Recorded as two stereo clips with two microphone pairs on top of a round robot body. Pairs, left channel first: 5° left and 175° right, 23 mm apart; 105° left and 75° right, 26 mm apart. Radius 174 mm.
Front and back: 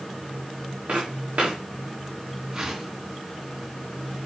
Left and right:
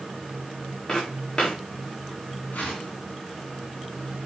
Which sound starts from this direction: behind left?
A whoosh, at 2.5 s.